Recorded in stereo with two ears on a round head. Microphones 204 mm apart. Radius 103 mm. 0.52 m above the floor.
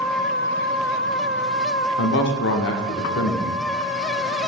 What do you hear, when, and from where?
2.0 s a man speaking: 55° left (ahead or behind), 1.0 m